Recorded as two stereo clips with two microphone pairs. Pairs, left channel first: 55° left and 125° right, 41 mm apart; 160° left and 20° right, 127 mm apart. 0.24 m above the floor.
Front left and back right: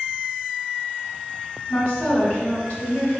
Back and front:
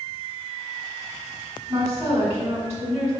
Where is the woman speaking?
55° left, 1.1 m.